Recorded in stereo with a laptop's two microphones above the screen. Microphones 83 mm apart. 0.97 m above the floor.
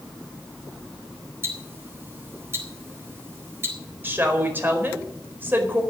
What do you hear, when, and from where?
1.4 s ticking: 30° right (ahead or behind), 4 m
4.0 s a woman speaking: 25° right (ahead or behind), 4 m